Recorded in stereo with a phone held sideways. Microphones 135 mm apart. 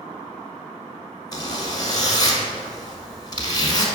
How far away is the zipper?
About 1.3 m.